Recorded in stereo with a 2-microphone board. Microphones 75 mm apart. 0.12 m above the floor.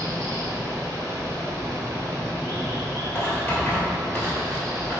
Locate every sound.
0.0 s running water: 45° right (ahead or behind), 0.9 m
3.1 s writing: 25° left (ahead or behind), 1.2 m